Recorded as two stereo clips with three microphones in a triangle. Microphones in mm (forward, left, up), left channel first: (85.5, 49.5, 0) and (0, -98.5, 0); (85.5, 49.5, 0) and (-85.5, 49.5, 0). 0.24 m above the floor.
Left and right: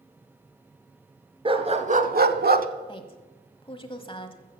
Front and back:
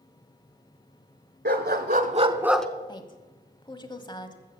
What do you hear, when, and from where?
1.4 s a dog barking: 175° right, 1.1 m; by 2.7 s 85° right, 0.7 m
2.9 s a woman speaking: 35° left, 1.1 m